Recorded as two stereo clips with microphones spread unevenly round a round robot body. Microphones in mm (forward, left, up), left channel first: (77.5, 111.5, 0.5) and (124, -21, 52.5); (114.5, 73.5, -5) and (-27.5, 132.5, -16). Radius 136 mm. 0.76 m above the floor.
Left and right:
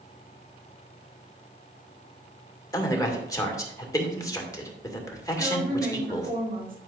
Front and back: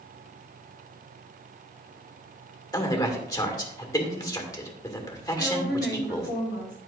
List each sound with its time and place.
2.7 s a man speaking: 45° left, 2 m
5.4 s a woman speaking: 50° right, 3 m